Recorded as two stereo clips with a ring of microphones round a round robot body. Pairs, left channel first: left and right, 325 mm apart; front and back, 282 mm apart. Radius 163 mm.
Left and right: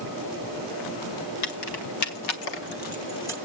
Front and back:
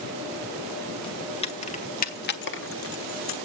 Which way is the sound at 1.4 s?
70° left.